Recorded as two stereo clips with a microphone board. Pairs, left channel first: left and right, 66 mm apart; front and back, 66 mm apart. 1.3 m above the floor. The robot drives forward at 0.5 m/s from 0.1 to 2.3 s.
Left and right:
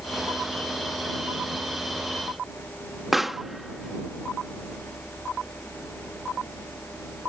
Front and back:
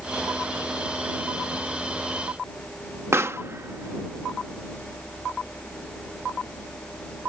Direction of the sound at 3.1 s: 175° right.